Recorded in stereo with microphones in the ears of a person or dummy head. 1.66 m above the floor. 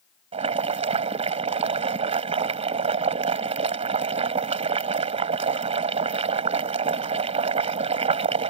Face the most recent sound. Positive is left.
turn(degrees=-35)  # may be behind; listen again after turning